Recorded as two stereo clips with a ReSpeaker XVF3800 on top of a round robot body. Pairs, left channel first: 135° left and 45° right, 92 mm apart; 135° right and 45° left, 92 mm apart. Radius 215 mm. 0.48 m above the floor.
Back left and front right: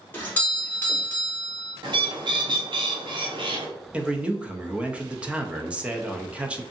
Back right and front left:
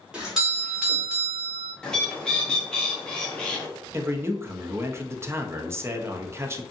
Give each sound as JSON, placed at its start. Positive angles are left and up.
{"t": 0.1, "sound": "a doorbell", "azimuth_deg": 115, "distance_m": 1.4}
{"t": 1.8, "sound": "a bird", "azimuth_deg": -55, "distance_m": 1.0}
{"t": 3.9, "sound": "a man speaking", "azimuth_deg": 20, "distance_m": 0.7}